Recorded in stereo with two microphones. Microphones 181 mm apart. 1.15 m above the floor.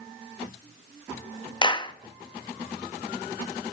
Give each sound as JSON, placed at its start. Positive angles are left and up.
{"t": 1.6, "sound": "a clap", "side_deg": 25, "distance_m": 1.1}